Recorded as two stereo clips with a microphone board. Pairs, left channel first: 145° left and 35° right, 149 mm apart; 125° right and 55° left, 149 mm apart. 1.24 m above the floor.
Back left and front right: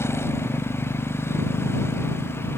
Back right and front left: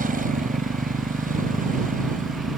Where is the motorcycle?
75° left.